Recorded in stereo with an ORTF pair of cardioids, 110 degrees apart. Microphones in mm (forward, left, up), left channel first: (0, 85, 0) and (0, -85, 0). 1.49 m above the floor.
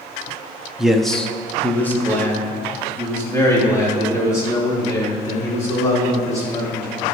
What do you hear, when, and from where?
0.8 s a man speaking: 5° right, 0.8 m; by 6.9 s 20° left, 5 m